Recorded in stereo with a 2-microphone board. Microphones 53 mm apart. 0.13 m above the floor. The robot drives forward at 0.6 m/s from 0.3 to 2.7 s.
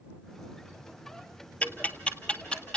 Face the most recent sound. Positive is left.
turn(degrees=15)  # may be behind; listen again after turning